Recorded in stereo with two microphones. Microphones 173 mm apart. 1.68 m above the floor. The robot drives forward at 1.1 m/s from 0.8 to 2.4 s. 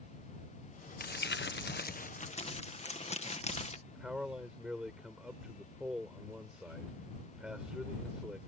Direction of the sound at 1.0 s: 55° left (ahead or behind).